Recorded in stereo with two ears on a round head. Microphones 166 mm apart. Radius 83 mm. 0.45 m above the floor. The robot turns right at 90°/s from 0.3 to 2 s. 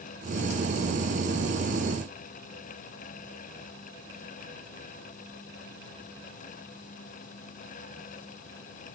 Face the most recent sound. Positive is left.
No sound to turn to.